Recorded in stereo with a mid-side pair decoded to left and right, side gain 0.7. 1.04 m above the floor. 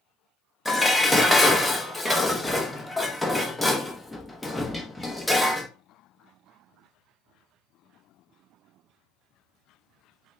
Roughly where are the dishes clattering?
Ahead.